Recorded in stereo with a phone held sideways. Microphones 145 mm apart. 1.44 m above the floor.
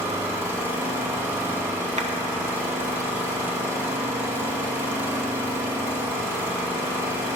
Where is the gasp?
I don't hear a gasp.